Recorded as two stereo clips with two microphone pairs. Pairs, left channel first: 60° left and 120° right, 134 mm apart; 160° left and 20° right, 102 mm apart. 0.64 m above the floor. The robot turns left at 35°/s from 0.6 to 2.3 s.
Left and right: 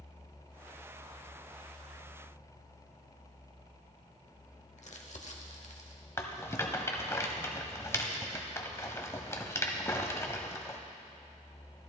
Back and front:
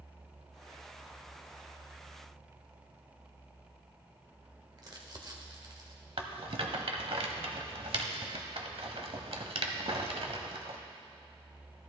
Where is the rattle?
5° right, 0.8 m.